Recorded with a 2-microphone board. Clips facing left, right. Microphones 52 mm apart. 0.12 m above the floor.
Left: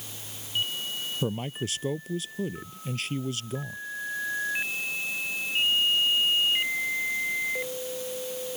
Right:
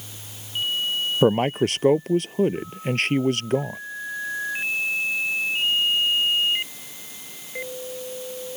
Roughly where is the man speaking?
Right.